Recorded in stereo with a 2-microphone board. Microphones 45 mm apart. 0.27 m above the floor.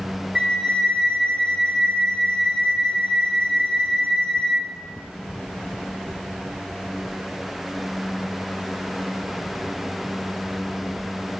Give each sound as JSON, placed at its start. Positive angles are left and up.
{"t": 0.3, "sound": "a flute", "side_deg": -15, "distance_m": 1.1}